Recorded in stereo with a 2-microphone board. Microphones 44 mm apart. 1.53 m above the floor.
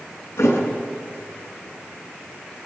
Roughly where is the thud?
Left.